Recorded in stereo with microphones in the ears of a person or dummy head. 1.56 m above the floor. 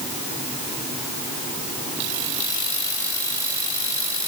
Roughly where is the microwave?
No microwave in this recording.